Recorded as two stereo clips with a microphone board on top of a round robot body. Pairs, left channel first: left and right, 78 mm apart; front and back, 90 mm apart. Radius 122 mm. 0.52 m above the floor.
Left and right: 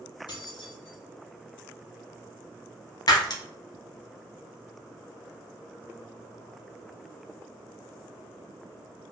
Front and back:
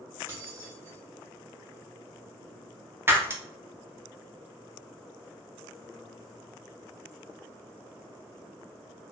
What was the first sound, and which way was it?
Keys jangling, 120° left.